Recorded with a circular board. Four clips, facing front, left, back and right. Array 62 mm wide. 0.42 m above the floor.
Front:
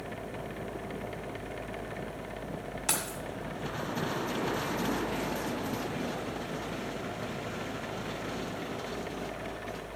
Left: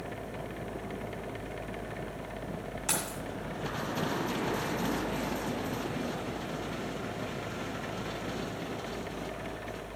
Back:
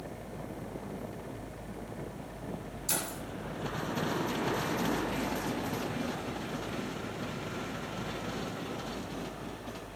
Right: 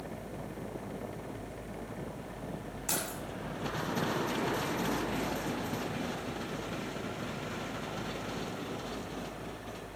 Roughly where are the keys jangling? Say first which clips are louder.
Left 1 dB, front 1 dB; ahead.